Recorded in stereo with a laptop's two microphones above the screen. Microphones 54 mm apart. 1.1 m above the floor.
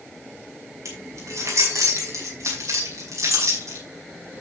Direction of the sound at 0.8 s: 85° right.